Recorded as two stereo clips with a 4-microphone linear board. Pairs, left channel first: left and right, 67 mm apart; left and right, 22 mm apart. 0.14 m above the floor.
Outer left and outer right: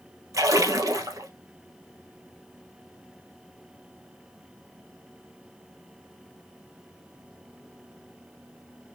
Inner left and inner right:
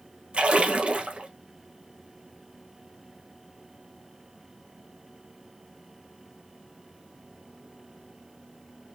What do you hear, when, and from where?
0.3 s a splash: 55° right (ahead or behind), 1.5 m